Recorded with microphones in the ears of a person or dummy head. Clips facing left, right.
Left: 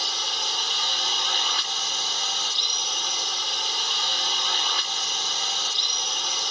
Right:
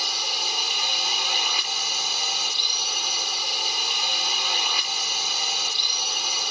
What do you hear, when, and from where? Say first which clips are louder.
0.0 s a drone: right 1 dB; 10° right (ahead or behind)